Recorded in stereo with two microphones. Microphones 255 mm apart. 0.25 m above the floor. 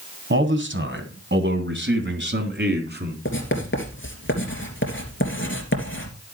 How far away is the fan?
No fan in this recording.